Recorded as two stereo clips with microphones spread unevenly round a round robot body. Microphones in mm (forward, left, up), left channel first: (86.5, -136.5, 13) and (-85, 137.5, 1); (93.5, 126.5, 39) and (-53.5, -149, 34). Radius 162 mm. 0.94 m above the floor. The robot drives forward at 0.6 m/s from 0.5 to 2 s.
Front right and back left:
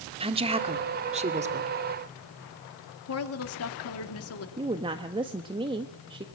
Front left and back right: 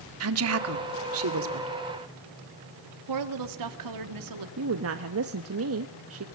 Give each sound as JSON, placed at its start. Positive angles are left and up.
{"t": 0.2, "sound": "a woman speaking", "azimuth_deg": -165, "distance_m": 2.0}
{"t": 3.1, "sound": "a woman speaking", "azimuth_deg": -105, "distance_m": 2.5}
{"t": 4.6, "sound": "a woman speaking", "azimuth_deg": -165, "distance_m": 1.2}